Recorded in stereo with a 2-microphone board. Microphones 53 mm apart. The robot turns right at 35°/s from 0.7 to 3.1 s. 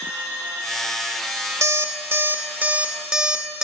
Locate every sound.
1.6 s an alarm clock: 65° right (ahead or behind), 0.6 m; by 3.6 s 15° right (ahead or behind), 0.6 m